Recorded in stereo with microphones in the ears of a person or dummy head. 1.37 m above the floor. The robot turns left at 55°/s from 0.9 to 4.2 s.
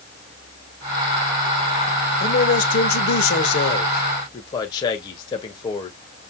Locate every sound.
2.2 s a man speaking: 135° left, 1.7 m; by 6.3 s 25° left, 1.7 m